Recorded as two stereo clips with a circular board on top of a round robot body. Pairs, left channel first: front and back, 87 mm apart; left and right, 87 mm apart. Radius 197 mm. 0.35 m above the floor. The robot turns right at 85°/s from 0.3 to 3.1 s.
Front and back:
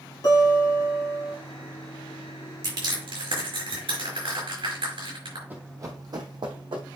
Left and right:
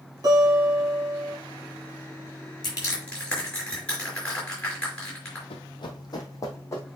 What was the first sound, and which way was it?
A guitar, 50° right.